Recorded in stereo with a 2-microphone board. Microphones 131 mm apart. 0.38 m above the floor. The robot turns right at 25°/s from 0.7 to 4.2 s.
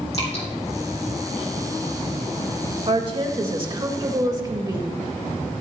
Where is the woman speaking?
75° right, 1.6 m; by 5.0 s 40° right, 1.6 m.